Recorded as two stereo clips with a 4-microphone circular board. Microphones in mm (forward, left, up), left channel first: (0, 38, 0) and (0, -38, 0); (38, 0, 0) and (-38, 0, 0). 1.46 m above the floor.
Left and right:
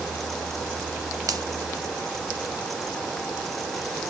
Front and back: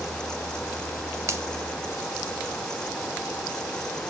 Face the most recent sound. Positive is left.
turn(degrees=-130)